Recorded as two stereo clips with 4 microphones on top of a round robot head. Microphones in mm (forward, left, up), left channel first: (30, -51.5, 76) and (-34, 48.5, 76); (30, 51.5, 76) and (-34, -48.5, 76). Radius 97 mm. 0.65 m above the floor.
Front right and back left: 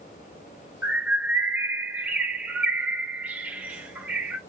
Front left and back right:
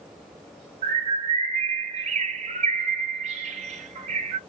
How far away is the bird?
About 0.8 m.